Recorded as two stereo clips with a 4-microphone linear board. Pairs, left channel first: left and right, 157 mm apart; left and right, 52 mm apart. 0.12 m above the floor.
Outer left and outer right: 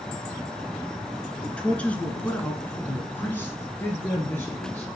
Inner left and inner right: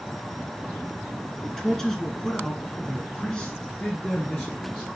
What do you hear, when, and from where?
1.4 s a man speaking: 5° left (ahead or behind), 1.7 m; by 4.9 s 15° left (ahead or behind), 2.5 m